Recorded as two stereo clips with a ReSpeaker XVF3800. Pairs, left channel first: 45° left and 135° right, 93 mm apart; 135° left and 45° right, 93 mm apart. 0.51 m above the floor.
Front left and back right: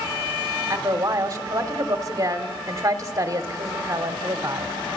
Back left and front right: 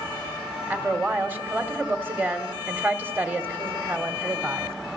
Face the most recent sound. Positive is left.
turn(degrees=-105)